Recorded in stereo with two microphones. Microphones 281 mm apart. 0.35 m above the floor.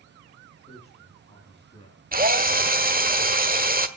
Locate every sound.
0.7 s a man speaking: 20° left (ahead or behind), 4 m
2.1 s a drill: 30° right (ahead or behind), 1.3 m